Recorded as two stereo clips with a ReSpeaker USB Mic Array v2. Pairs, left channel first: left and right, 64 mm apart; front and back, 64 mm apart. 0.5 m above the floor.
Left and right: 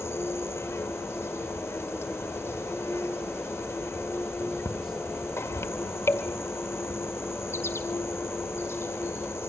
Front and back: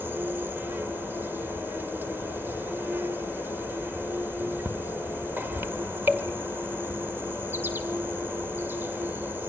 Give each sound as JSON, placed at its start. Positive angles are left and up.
{"t": 0.0, "sound": "an insect", "azimuth_deg": 130, "distance_m": 1.9}